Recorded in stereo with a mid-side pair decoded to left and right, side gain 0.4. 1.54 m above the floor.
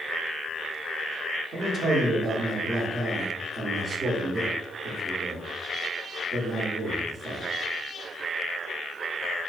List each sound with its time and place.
1.5 s a man speaking: 50° right, 0.9 m